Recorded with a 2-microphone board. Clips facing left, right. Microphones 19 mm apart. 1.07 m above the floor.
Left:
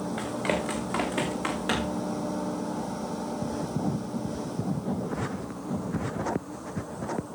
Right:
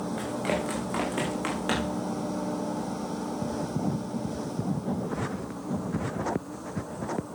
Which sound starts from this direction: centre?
Running footsteps, at 0.2 s.